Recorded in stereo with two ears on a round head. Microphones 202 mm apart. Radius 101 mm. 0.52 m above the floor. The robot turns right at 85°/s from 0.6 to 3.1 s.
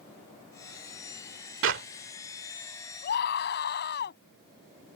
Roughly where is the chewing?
I don't hear chewing.